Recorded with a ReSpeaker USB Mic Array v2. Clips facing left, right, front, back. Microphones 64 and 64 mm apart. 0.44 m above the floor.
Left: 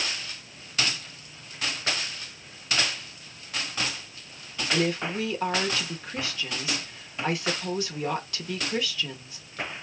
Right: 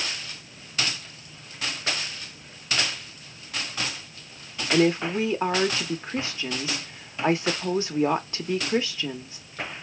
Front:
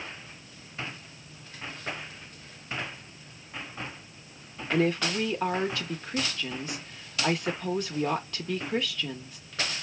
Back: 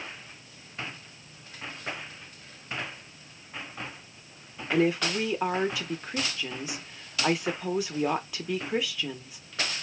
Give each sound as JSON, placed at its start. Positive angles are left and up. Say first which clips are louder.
{"t": 4.7, "sound": "a woman speaking", "louder": "right 5 dB, back 1 dB", "azimuth_deg": -110, "distance_m": 0.8}